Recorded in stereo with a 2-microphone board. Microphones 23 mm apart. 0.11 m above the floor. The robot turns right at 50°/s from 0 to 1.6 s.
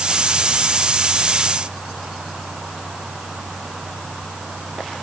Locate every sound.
Only background noise.